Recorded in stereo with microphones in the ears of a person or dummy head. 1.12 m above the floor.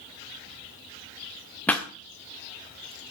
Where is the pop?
10° left (ahead or behind), 1.2 m.